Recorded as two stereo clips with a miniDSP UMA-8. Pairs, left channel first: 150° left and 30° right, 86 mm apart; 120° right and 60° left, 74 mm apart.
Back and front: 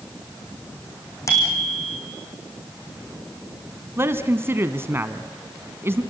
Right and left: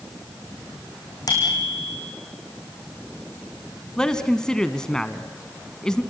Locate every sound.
1.3 s a bicycle bell: 155° right, 6.5 m
4.0 s a man speaking: 50° right, 1.3 m